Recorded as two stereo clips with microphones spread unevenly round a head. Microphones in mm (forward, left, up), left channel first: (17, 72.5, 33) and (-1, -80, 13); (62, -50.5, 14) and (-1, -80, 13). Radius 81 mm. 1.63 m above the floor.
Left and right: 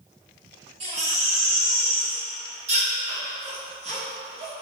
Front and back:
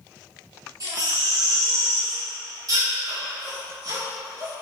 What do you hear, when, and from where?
0.8 s a baby crying: 145° right, 1.6 m